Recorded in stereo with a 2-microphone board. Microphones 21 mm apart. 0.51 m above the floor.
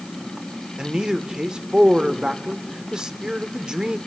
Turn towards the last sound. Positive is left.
turn(degrees=-40)  # may be behind; listen again after turning